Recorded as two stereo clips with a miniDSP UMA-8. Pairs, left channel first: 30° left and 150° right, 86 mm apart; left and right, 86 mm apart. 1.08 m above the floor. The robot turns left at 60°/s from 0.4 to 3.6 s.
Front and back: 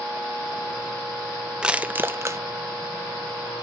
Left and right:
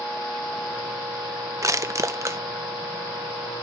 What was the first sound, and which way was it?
Crushing, 75° right.